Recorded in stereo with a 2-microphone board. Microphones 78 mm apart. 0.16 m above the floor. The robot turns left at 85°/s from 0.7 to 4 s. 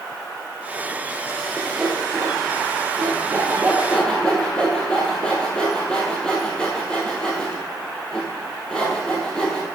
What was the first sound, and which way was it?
Sawing, 15° left (ahead or behind).